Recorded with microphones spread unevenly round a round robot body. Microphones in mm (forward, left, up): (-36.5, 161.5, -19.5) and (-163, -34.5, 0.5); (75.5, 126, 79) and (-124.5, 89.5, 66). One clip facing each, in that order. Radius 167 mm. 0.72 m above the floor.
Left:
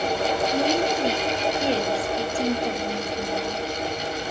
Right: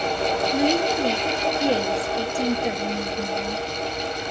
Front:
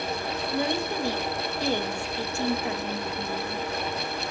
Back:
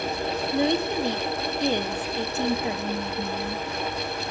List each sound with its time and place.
0.5 s a woman speaking: 170° left, 0.9 m